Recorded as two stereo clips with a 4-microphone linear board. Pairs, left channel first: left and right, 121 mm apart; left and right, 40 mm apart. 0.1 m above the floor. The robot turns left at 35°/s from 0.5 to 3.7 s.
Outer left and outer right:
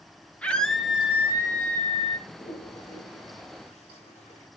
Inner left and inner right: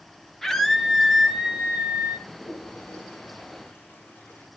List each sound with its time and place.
0.4 s a scream: 10° left, 3 m; by 2.2 s 50° right, 3 m
2.3 s a toilet flushing: 60° left (ahead or behind), 7.5 m; by 4.5 s 65° left (ahead or behind), 7.5 m